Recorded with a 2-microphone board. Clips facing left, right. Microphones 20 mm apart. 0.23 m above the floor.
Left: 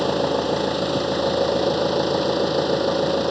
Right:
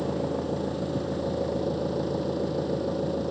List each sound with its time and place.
0.0 s an engine running: 70° left (ahead or behind)